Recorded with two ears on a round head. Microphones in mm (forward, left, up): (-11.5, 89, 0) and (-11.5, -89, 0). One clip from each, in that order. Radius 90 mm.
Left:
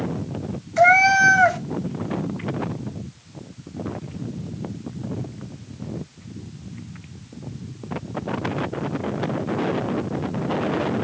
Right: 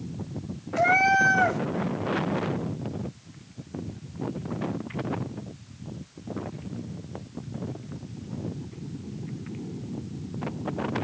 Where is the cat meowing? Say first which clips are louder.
Left 6 dB; 20° left (ahead or behind), 1.3 m.